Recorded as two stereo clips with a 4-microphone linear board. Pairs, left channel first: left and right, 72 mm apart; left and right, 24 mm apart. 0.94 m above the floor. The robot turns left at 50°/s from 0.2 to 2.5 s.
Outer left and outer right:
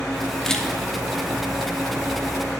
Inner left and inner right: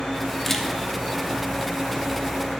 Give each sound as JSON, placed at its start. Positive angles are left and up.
{"t": 0.5, "sound": "a camera shutter", "side_deg": 10, "distance_m": 0.6}